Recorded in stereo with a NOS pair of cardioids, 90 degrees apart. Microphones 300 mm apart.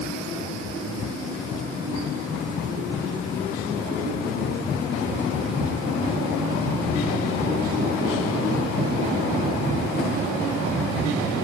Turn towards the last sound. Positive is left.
No sound to turn to.